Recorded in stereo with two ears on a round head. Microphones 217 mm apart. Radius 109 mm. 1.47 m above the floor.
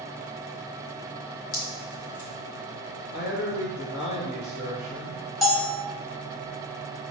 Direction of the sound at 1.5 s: 60° left (ahead or behind).